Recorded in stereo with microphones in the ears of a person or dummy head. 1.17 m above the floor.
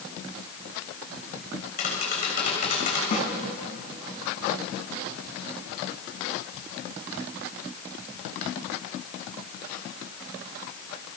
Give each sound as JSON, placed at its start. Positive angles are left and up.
{"t": 1.8, "sound": "tapping", "side_deg": 45, "distance_m": 6.5}
{"t": 3.1, "sound": "a snare drum", "side_deg": 50, "distance_m": 3.0}